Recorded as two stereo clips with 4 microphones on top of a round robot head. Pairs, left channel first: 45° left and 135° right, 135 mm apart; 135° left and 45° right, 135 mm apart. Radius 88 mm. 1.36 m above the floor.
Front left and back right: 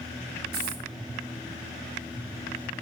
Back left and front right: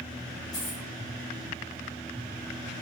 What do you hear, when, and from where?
0.5 s a dropped coin: 160° right, 3.5 m